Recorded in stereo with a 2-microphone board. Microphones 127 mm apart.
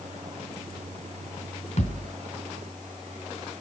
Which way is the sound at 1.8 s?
65° left (ahead or behind).